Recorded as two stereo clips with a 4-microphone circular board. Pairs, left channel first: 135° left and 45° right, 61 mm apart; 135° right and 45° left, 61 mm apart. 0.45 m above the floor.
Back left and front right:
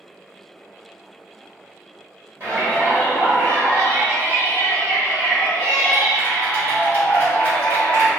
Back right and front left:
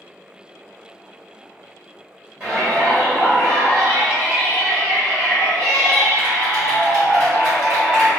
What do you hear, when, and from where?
2.4 s a shout: 5° left, 1.8 m